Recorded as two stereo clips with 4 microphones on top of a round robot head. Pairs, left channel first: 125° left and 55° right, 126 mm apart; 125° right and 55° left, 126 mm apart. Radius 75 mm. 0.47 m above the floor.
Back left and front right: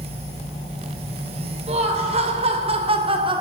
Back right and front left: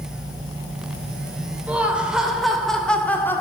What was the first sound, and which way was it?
Laughter, 25° right.